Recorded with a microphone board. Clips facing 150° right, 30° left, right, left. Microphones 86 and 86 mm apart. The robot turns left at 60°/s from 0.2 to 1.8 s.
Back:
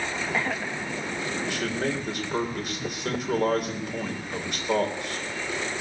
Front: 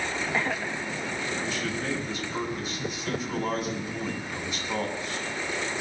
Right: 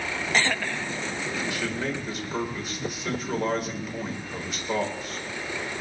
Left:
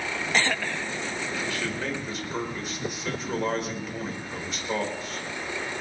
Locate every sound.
1.4 s a man speaking: 155° right, 3.5 m; by 5.2 s 175° right, 3.5 m